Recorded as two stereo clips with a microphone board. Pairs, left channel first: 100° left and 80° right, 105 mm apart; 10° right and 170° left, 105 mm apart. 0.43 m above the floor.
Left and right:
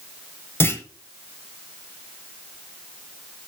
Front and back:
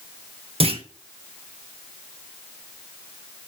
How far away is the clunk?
About 1.1 m.